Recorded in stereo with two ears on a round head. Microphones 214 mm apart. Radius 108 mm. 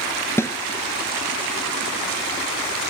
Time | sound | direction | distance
0.4 | a snare drum | 10° left (ahead or behind) | ?